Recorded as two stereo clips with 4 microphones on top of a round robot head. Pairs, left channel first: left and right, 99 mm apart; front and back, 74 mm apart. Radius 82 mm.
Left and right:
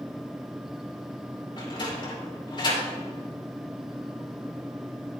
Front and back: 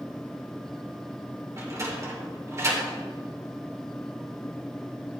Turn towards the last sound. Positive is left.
turn(degrees=130)